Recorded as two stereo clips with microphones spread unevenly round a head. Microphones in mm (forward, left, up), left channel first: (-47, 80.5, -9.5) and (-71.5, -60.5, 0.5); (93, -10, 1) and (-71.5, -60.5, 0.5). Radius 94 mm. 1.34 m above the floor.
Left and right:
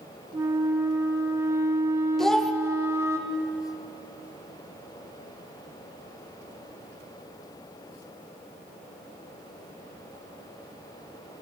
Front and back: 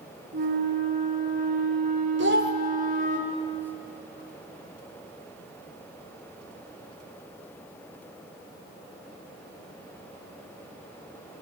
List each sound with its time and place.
0.3 s a flute: 160° right, 0.8 m
2.2 s a child speaking: 170° left, 0.9 m